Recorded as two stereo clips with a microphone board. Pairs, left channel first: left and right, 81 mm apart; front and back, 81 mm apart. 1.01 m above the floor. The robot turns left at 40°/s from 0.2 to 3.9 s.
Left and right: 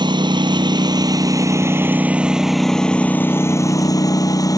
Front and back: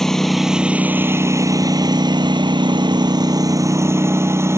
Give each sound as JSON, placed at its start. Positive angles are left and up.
{"t": 0.0, "sound": "a lawn mower", "azimuth_deg": -85}